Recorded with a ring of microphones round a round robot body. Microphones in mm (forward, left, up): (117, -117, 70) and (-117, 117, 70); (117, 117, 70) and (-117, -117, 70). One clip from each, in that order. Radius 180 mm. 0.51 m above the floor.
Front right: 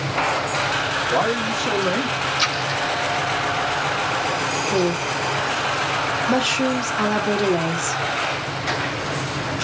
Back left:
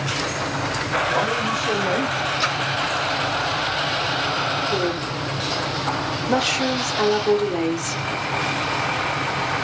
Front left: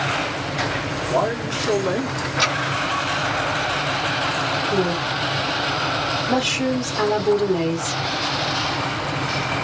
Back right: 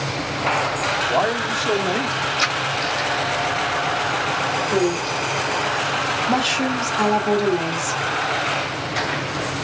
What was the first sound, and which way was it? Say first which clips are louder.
A man speaking: front right 1 dB, back right 2 dB; 85° right.